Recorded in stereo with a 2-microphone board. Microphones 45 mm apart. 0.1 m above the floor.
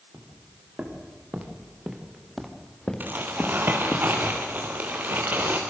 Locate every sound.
0.1 s footsteps: 40° right (ahead or behind), 5 m; by 4.0 s 55° left (ahead or behind), 3 m
3.0 s crumpling: 45° right (ahead or behind), 5 m